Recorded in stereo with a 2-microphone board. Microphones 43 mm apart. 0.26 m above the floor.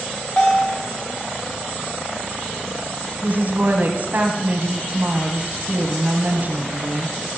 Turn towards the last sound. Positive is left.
turn(degrees=-50)  # may be behind; listen again after turning